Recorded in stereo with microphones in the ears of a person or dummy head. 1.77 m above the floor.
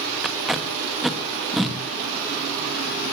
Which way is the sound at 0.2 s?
5° right (ahead or behind).